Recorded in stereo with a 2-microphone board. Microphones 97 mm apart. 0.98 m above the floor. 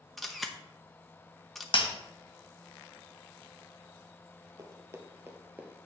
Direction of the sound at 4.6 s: 35° right (ahead or behind).